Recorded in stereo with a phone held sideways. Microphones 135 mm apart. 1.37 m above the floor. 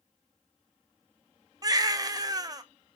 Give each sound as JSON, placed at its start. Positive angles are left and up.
{"t": 1.6, "sound": "a baby crying", "side_deg": -30, "distance_m": 0.5}